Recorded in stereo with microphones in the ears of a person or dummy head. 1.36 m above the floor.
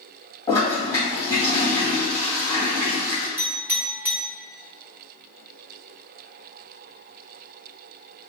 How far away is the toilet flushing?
About 1.8 m.